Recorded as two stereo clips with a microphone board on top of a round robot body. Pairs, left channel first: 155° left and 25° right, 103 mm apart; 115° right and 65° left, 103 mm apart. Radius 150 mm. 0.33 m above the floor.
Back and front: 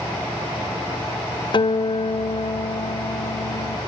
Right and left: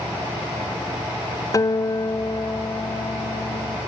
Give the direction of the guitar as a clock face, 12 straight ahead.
6 o'clock.